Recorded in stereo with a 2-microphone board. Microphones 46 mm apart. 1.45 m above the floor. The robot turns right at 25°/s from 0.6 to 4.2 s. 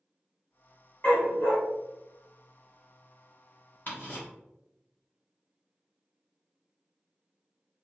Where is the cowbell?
I don't hear a cowbell.